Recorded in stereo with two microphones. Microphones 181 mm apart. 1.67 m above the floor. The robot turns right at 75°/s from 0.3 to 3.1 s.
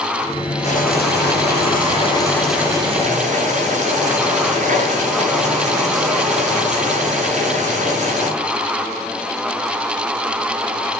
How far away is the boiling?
About 1.2 m.